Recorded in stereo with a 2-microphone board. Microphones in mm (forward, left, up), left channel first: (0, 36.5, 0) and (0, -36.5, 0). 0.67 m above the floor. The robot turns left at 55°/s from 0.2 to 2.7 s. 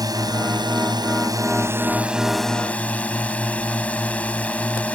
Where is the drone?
60° right; by 5.0 s 165° left.